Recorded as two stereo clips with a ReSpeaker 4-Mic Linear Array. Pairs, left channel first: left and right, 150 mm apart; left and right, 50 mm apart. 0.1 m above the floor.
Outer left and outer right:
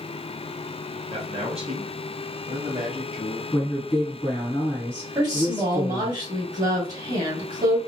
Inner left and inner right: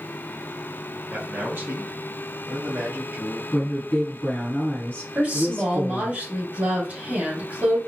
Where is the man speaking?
35° right (ahead or behind), 1.5 m; by 3.4 s 50° right (ahead or behind), 2.5 m.